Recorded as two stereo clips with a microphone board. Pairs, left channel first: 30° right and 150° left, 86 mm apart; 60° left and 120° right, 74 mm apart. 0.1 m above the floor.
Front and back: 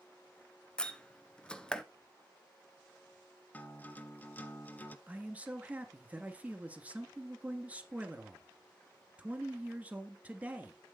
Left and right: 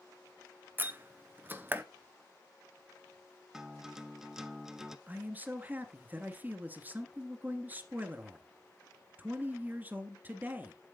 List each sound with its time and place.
0.8 s a door slam: 100° right, 1.0 m
3.5 s a guitar: 50° right, 0.9 m
5.1 s a man speaking: 155° right, 1.7 m